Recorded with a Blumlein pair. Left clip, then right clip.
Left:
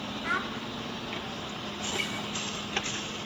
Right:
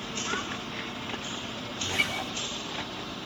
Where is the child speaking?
65° left, 4 m.